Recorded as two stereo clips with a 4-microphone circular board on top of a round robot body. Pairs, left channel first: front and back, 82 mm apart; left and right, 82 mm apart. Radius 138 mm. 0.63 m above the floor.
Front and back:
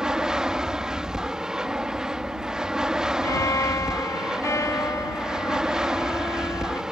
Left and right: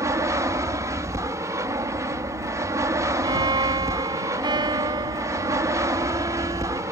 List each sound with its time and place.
0.0 s an aircraft: 105° right
3.2 s a violin: 55° right